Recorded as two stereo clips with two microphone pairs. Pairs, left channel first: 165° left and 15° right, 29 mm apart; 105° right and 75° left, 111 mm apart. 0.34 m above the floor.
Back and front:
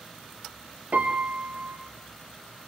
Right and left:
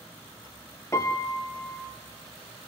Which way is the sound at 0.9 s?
40° right.